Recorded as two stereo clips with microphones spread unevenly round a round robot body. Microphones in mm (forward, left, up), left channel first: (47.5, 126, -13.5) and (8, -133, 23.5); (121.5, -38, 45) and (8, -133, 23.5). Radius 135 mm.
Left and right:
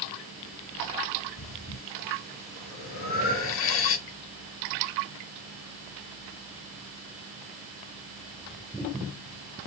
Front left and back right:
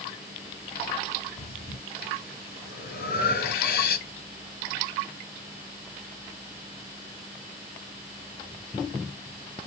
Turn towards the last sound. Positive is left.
turn(degrees=40)